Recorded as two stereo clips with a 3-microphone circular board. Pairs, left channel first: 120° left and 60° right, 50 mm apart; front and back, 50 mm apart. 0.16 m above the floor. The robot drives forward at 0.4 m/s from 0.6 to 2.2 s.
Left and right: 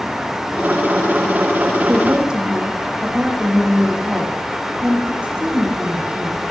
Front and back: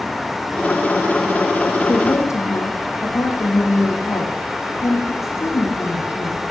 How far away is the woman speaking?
About 8.5 m.